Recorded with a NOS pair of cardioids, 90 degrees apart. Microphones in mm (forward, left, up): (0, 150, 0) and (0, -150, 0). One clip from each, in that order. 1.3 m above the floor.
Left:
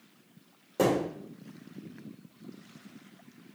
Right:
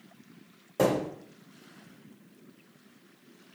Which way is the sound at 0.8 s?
Straight ahead.